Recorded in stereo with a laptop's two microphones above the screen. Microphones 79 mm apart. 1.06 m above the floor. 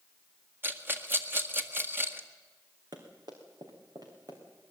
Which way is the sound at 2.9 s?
60° right (ahead or behind).